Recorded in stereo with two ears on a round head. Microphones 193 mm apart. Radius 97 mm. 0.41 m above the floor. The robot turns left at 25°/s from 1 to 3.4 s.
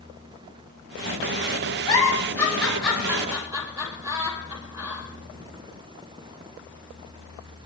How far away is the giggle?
About 6.5 m.